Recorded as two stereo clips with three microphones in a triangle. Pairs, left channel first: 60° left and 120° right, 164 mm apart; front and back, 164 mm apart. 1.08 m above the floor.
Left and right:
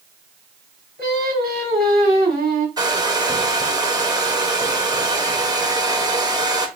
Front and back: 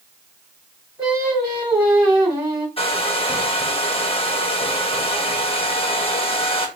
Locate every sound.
1.0 s singing: 105° right, 3 m
2.8 s a hair dryer: 50° right, 0.8 m